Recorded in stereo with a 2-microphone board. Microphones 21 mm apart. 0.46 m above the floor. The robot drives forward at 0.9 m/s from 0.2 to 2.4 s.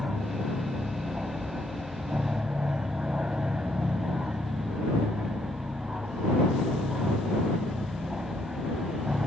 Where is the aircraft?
60° right (ahead or behind).